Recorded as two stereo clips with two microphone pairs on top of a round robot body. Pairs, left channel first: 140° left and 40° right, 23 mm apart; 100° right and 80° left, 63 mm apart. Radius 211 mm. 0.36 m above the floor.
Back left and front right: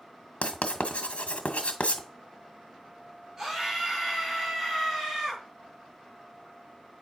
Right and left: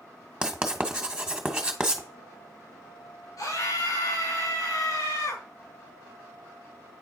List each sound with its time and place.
0.4 s writing: 155° left, 1.9 m
3.4 s a scream: 115° right, 4 m